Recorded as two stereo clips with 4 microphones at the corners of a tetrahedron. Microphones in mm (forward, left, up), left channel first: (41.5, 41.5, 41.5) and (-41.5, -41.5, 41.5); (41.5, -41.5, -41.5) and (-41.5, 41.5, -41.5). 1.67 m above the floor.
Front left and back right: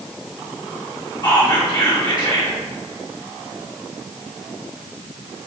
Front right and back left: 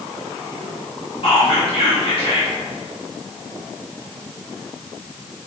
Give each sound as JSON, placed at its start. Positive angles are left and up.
{"t": 1.2, "sound": "whispering", "azimuth_deg": -10, "distance_m": 1.3}